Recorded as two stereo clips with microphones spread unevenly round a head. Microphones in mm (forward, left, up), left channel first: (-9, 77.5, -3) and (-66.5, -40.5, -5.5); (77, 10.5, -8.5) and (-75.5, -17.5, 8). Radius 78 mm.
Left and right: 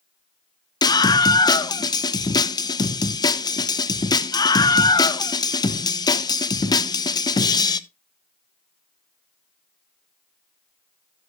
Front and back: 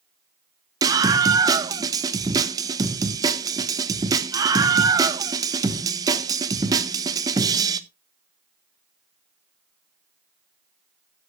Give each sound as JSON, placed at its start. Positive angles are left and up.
{"t": 0.8, "sound": "a scream", "azimuth_deg": 125, "distance_m": 1.0}